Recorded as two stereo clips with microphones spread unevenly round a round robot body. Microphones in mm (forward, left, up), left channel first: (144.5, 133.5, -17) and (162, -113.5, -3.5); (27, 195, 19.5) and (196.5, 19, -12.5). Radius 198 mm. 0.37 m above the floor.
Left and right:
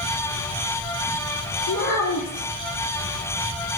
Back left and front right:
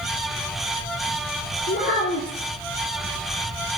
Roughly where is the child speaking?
Left.